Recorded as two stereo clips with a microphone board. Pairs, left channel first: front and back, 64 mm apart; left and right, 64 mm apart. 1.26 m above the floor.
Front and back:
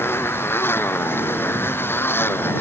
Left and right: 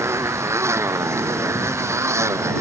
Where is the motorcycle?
50° right; by 2.6 s 55° right.